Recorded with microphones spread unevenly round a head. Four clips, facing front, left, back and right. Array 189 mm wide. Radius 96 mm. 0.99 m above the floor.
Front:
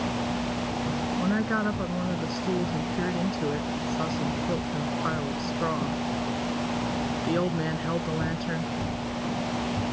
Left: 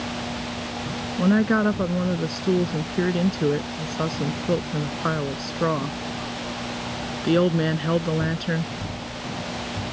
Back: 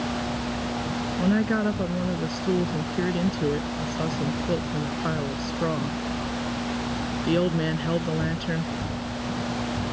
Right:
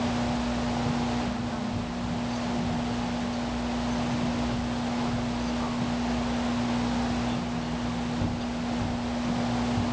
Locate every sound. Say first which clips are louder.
1.2 s a woman speaking: left 11 dB, back 5 dB; 110° left